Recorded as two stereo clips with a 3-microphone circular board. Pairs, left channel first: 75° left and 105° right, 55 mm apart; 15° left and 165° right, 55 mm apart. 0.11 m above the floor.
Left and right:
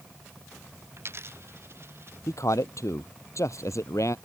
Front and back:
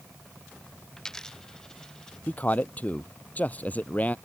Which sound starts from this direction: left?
A man speaking, at 2.3 s.